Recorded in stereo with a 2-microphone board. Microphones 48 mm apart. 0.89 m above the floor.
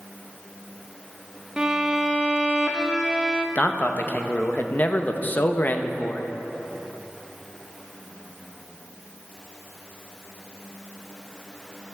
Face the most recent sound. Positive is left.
turn(degrees=35)  # may be behind; listen again after turning